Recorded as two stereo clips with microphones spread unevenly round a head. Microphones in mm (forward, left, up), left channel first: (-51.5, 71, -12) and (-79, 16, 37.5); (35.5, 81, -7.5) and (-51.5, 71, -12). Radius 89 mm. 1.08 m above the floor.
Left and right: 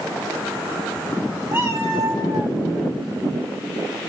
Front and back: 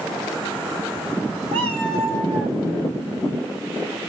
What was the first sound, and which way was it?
A cat meowing, 155° right.